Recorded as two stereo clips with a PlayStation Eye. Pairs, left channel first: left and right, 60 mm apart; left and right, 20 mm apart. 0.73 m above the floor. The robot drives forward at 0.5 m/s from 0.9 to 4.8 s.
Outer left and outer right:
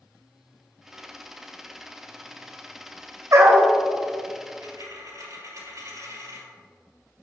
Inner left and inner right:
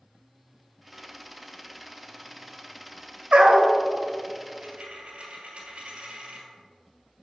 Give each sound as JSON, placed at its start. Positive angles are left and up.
{"t": 3.3, "sound": "a dog barking", "side_deg": -55, "distance_m": 1.0}
{"t": 4.6, "sound": "a dropped coin", "side_deg": -65, "distance_m": 1.6}